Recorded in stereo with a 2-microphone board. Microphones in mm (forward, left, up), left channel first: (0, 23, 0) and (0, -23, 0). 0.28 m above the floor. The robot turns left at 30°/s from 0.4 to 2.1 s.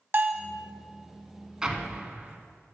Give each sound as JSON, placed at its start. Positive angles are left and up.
{"t": 0.1, "sound": "a bell", "side_deg": -40, "distance_m": 0.5}
{"t": 1.6, "sound": "an explosion", "side_deg": -10, "distance_m": 0.8}